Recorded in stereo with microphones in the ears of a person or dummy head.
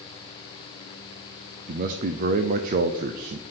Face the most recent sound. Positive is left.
turn(degrees=-50)  # may be behind; listen again after turning